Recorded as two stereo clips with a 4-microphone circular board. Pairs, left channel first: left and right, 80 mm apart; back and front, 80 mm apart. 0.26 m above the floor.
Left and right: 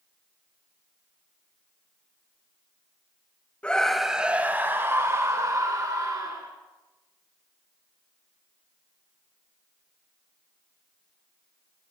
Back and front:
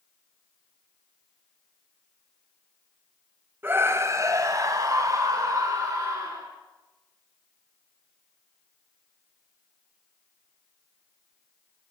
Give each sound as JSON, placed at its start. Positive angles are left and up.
{"t": 3.6, "sound": "a scream", "azimuth_deg": 30, "distance_m": 1.0}